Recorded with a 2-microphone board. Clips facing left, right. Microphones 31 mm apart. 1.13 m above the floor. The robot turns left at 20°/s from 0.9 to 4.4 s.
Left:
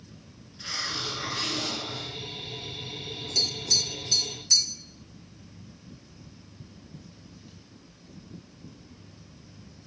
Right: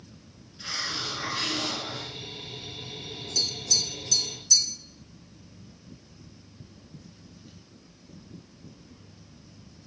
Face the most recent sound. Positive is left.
turn(degrees=40)  # may be behind; listen again after turning